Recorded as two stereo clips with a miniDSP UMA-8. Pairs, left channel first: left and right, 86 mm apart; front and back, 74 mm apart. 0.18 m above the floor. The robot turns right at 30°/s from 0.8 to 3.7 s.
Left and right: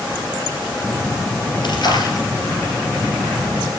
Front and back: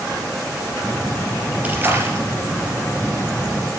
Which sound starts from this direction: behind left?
A splash, at 1.6 s.